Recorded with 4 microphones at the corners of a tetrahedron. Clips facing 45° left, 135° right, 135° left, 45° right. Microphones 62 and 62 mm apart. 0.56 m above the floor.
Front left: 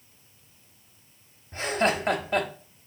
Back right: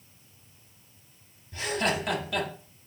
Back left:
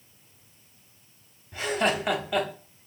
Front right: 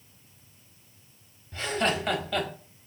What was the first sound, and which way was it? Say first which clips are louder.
Laughter: front left 3 dB, back left 2 dB; 65° left.